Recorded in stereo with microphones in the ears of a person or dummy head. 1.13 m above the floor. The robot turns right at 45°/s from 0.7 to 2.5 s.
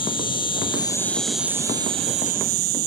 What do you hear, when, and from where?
0.0 s an insect: 150° left; by 2.9 s 130° right